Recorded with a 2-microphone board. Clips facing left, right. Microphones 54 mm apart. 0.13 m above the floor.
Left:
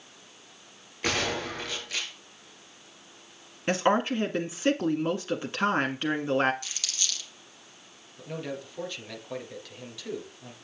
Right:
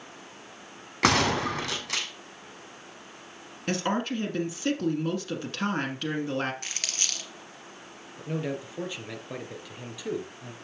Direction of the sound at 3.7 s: 20° left (ahead or behind).